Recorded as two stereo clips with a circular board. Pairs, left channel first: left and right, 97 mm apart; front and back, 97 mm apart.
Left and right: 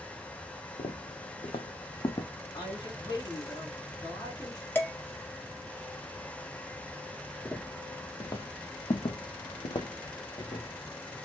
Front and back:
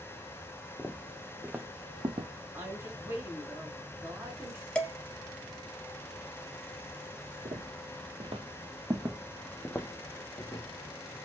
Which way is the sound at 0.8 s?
80° left.